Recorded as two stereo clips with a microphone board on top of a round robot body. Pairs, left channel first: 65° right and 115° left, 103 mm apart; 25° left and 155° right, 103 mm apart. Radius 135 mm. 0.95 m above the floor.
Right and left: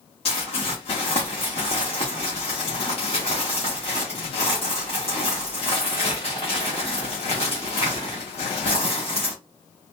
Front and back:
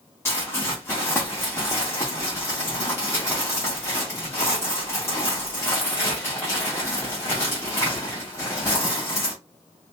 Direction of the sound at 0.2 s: 40° right.